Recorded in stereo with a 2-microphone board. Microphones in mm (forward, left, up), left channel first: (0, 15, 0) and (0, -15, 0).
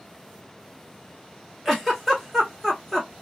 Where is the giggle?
10° right (ahead or behind), 1.2 m.